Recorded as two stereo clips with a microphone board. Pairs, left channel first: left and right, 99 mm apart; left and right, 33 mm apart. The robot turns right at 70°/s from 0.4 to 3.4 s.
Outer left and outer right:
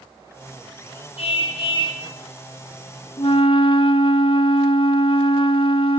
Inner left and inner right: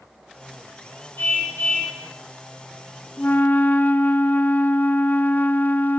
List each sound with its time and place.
1.2 s a car horn: 75° left, 4.5 m; by 2.0 s 130° left, 4.5 m
3.2 s a flute: 65° left (ahead or behind), 0.8 m; by 6.0 s 60° left (ahead or behind), 0.8 m